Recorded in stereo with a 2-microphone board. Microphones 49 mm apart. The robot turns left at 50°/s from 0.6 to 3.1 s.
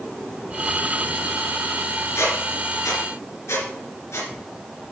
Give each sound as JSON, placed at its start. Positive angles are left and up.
{"t": 2.1, "sound": "a squeak", "side_deg": 60, "distance_m": 3.0}